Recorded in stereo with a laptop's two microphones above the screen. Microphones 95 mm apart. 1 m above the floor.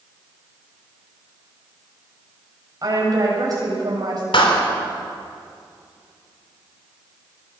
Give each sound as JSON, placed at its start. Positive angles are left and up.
{"t": 2.8, "sound": "a woman speaking", "side_deg": -40, "distance_m": 6.0}
{"t": 4.3, "sound": "a clap", "side_deg": 70, "distance_m": 3.0}